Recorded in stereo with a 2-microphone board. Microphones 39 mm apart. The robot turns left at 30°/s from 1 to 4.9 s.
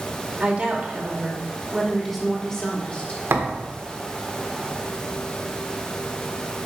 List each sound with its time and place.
0.4 s a woman speaking: 150° right, 2.5 m; by 3.2 s 140° left, 2.5 m
3.3 s a thud: 75° right (ahead or behind), 1.4 m; by 3.7 s 85° right, 1.4 m